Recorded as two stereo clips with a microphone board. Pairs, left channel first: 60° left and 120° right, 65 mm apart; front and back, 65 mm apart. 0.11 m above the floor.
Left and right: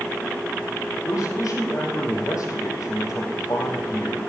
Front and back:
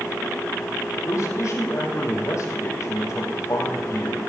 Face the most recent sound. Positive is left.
turn(degrees=35)